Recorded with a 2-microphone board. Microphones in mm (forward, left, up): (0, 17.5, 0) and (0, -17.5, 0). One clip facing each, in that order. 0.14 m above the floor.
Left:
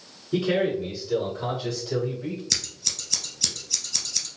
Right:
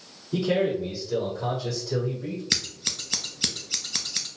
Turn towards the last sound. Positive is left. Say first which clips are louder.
# right 2 dB
turn(degrees=-35)  # may be behind; listen again after turning